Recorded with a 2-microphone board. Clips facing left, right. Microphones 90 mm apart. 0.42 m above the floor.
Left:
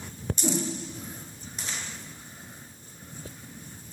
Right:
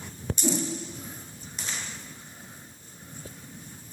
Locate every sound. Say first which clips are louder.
0.4 s a whoosh: right 1 dB; 20° left (ahead or behind), 1.4 m